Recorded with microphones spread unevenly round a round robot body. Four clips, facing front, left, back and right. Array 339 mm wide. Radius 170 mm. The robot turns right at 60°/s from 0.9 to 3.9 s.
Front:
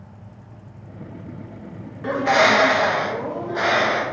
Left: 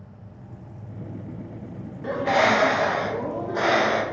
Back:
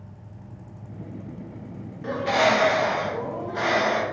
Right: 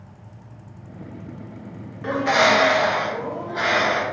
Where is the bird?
30° right, 0.6 m; by 4.0 s 80° left, 0.6 m.